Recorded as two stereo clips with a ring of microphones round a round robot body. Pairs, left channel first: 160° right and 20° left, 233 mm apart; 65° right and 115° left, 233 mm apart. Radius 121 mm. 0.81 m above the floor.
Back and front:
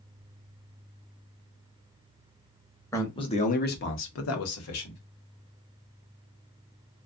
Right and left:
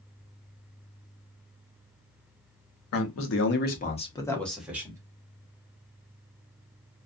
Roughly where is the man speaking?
Right.